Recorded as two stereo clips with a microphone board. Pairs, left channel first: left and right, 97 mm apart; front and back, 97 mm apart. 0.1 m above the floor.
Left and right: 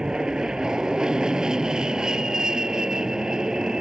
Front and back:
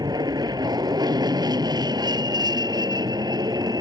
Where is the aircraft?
170° right.